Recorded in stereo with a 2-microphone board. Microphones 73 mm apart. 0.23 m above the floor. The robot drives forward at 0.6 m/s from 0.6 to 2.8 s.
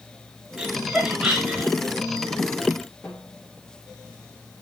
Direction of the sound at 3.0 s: 25° left (ahead or behind).